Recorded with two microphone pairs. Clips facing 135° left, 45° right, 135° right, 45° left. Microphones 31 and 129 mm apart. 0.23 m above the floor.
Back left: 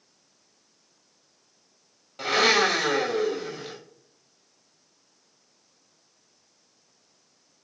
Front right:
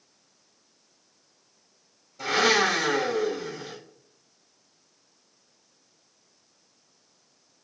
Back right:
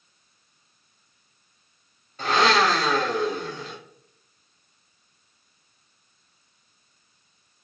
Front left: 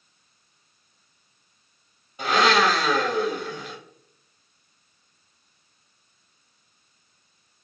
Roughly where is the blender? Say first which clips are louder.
Back left 1 dB, even; behind left.